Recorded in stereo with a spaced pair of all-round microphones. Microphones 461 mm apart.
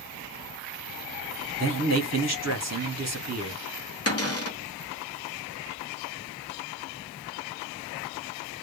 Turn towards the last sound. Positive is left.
turn(degrees=30)  # may be behind; listen again after turning